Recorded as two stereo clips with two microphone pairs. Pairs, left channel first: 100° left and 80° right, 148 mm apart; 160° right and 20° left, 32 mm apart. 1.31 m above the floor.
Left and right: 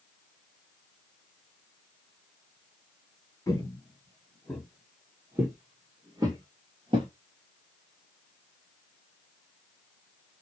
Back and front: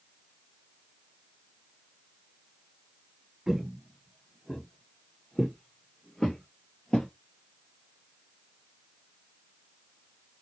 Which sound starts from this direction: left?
Footsteps, at 3.5 s.